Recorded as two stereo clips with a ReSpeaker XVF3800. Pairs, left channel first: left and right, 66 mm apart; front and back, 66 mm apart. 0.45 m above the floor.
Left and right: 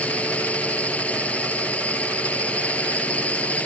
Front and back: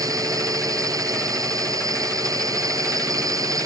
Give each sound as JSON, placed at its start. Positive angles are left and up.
{"t": 0.0, "sound": "a drone", "azimuth_deg": 160}